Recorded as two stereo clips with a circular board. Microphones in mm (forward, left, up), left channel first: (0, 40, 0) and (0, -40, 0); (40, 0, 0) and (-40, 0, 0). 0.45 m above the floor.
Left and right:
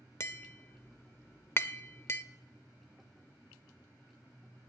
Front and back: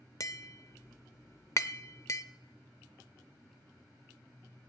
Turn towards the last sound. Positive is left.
turn(degrees=40)